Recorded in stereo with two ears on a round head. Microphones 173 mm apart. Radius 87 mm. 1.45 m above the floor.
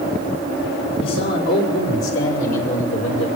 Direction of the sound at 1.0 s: 70° left (ahead or behind).